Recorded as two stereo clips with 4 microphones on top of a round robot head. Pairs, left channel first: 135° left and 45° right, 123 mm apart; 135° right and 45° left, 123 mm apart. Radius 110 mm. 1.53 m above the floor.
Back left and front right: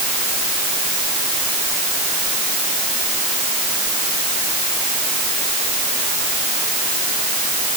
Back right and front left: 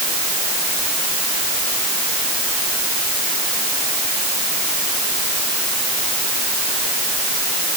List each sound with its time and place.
Only background noise.